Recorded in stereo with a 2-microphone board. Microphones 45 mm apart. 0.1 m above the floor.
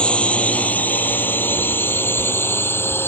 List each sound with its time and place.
0.0 s a drone: 30° left (ahead or behind); by 3.1 s 65° left (ahead or behind)